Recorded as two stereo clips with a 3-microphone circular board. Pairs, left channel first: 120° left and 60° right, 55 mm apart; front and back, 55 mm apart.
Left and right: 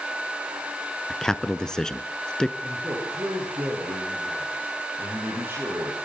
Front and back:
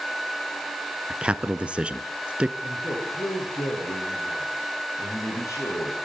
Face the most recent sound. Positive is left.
turn(degrees=-10)